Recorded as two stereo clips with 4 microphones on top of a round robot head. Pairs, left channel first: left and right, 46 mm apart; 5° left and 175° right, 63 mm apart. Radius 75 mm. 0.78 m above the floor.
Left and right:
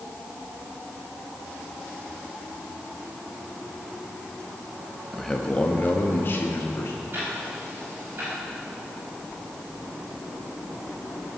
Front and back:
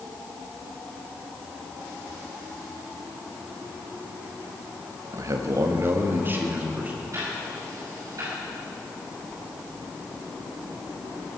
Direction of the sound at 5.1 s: Straight behind.